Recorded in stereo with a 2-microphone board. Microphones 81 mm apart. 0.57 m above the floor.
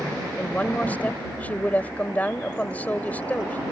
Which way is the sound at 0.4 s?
20° left (ahead or behind).